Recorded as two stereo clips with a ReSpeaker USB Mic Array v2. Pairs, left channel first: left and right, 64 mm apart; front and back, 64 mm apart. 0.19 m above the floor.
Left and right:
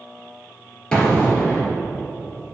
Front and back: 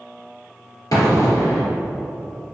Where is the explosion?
15° left, 2 m.